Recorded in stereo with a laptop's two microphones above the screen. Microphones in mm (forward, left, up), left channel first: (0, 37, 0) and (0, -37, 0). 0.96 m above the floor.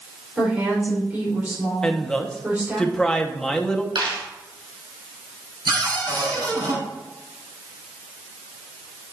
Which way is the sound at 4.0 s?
75° right (ahead or behind).